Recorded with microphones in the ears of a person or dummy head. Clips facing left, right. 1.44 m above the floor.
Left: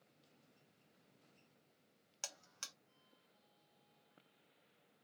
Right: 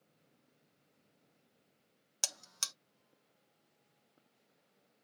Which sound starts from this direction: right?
A buzzer, at 2.2 s.